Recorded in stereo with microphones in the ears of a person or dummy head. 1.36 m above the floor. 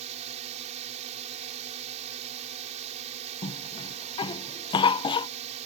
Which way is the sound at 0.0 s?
40° right (ahead or behind).